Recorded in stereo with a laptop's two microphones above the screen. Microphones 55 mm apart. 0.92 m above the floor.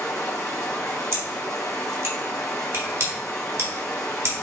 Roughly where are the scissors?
Right.